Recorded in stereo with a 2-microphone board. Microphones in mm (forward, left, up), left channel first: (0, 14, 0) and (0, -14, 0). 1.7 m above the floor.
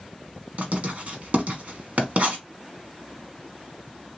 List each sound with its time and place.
0.6 s writing: 50° right (ahead or behind), 1.2 m